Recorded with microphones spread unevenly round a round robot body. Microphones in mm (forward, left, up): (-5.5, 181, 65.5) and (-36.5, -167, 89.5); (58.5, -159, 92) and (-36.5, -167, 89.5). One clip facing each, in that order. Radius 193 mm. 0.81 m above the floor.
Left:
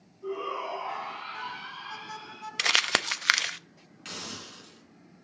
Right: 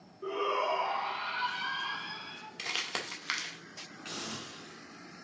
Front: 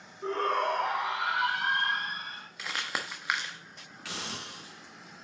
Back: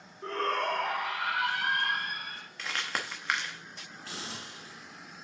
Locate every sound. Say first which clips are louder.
0.2 s a shout: right 1 dB, front 2 dB; 75° right, 2.5 m; by 2.5 s 60° right, 4 m
2.6 s crumpling: left 8 dB, even; 90° left, 0.6 m
4.0 s a hiss: even, front 3 dB; 10° left, 3 m